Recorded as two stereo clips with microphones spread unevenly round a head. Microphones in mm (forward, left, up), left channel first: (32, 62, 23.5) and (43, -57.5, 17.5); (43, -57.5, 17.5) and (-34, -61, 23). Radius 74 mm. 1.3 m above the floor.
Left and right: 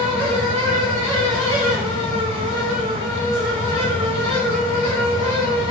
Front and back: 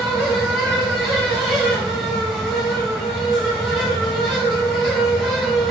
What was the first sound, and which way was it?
A fan, 85° right.